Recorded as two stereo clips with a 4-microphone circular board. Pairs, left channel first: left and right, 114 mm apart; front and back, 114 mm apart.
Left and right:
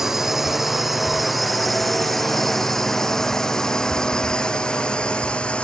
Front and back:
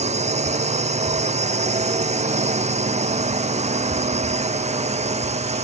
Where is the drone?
175° right; by 5.6 s 170° left.